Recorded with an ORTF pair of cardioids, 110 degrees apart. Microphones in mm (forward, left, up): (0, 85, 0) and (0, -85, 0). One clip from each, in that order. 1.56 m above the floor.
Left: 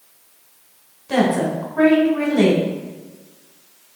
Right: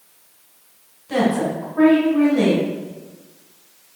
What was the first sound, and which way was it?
A woman speaking, 20° left.